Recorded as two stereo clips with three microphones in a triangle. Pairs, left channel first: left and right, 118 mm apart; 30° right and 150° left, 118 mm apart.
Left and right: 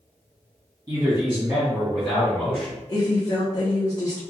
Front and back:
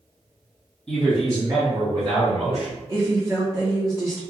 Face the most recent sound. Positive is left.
turn(degrees=110)